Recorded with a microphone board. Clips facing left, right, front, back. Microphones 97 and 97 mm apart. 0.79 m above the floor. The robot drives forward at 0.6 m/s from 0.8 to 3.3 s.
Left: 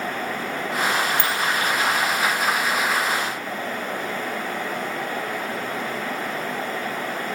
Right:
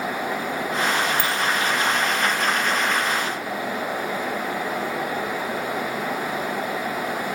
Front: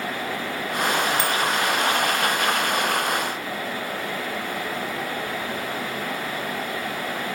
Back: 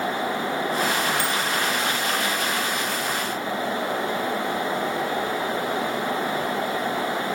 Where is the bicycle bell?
15° right, 2 m.